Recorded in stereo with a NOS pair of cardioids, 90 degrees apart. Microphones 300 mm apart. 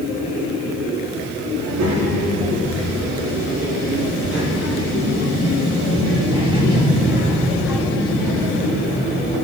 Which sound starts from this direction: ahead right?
A child speaking, at 1.6 s.